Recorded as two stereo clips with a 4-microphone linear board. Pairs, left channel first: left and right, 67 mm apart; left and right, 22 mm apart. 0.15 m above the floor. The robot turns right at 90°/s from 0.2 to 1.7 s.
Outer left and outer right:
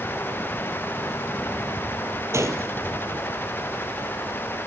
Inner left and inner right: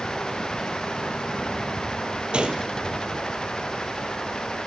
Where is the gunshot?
45° right (ahead or behind), 1.5 m.